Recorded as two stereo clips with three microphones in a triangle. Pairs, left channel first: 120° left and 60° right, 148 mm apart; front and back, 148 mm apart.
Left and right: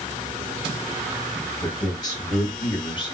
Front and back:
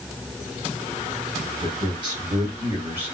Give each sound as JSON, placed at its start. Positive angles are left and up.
{"t": 1.6, "sound": "a man speaking", "azimuth_deg": 175, "distance_m": 1.4}